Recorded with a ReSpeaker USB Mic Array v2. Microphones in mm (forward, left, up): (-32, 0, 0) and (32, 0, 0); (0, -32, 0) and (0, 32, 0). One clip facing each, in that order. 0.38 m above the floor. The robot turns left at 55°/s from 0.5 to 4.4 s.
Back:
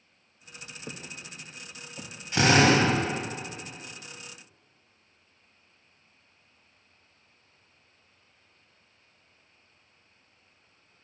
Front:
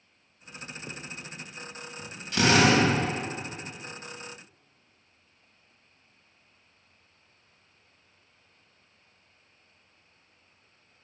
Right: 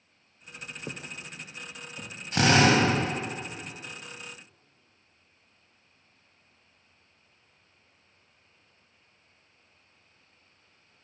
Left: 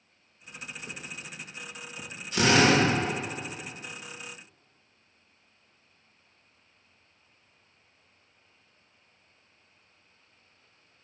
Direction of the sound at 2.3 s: 115° right.